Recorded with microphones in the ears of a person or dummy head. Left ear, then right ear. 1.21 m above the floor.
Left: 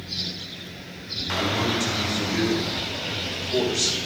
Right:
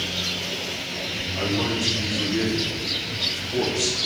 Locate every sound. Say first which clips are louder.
1.4 s a man speaking: left 1 dB; 65° left (ahead or behind), 4 m; by 4.0 s 70° left (ahead or behind), 3.5 m